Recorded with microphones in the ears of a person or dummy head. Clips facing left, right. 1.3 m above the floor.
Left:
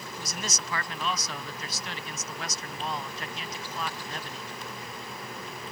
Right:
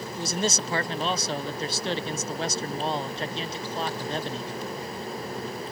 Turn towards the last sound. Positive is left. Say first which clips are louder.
# right 11 dB
turn(degrees=-30)  # may be behind; listen again after turning